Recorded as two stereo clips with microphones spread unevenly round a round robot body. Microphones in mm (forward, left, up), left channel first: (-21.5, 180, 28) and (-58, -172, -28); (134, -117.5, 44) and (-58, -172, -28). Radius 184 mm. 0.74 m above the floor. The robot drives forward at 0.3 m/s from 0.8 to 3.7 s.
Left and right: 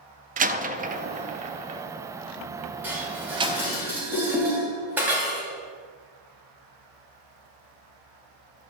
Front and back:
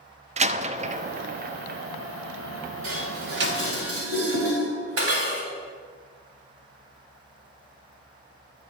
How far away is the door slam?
About 0.5 m.